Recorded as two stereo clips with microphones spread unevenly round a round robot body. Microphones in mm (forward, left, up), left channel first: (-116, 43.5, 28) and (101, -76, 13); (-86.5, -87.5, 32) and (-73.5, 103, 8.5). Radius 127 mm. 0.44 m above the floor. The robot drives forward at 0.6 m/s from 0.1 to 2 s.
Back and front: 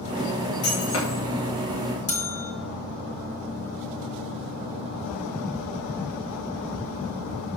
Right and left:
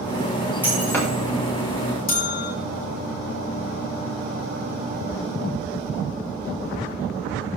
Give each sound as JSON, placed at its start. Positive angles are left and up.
{"t": 0.6, "sound": "breaking glass", "azimuth_deg": -175, "distance_m": 6.5}
{"t": 2.1, "sound": "a bell", "azimuth_deg": -145, "distance_m": 3.0}